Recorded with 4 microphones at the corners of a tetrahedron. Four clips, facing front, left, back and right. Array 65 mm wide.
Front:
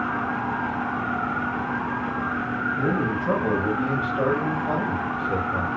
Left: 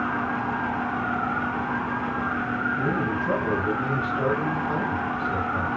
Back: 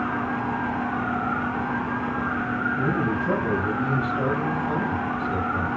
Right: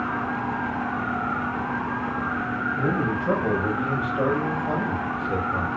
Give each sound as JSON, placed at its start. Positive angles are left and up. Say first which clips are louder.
{"t": 2.8, "sound": "a man speaking", "louder": "right 1 dB, even", "azimuth_deg": -60, "distance_m": 8.0}